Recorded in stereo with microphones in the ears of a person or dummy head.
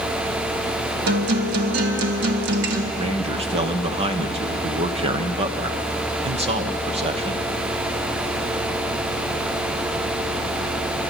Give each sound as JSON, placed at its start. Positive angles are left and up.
{"t": 1.1, "sound": "a guitar", "side_deg": -60, "distance_m": 1.8}
{"t": 2.9, "sound": "a man speaking", "side_deg": -35, "distance_m": 1.1}